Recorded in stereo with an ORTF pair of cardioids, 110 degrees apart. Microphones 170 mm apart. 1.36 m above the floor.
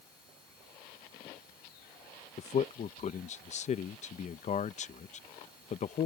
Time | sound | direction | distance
2.4 | a man speaking | 40° left | ?